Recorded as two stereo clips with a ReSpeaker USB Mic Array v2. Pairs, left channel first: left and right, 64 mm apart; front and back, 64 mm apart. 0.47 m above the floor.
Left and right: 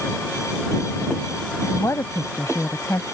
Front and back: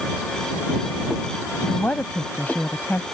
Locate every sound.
1.6 s a woman speaking: 60° left